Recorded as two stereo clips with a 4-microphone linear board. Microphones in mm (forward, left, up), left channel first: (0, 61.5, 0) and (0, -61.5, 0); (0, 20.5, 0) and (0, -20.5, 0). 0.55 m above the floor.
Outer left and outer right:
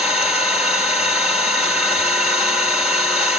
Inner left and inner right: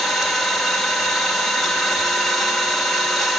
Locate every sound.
0.0 s an engine running: 10° right (ahead or behind), 1.7 m